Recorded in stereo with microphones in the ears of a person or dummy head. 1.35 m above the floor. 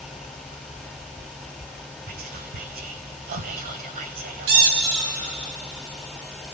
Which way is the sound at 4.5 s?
55° right (ahead or behind).